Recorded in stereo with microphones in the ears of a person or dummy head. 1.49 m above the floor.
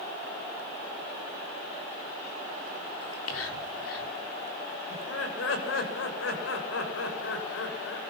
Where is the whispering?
90° left, 4.5 m.